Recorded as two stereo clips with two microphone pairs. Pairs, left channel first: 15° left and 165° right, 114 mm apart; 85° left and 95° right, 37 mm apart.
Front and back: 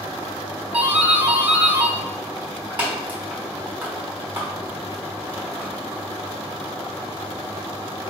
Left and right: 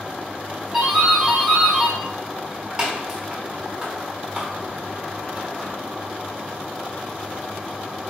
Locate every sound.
0.7 s a doorbell: 110° right, 1.1 m